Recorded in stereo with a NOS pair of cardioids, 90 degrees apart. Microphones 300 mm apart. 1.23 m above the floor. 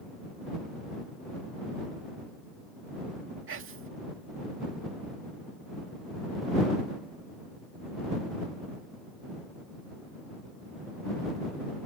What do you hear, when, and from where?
3.5 s whispering: 45° right